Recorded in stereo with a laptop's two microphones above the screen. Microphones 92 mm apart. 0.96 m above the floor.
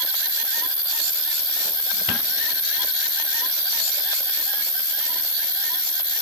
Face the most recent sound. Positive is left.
turn(degrees=20)  # may be behind; listen again after turning